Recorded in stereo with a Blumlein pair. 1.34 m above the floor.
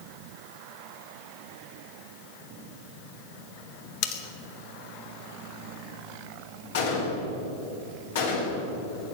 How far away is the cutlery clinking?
About 1.5 m.